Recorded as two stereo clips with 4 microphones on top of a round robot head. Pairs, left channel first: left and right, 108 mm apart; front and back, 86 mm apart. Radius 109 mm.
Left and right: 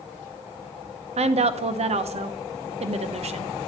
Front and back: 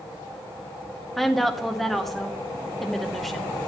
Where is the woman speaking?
85° right, 0.7 m.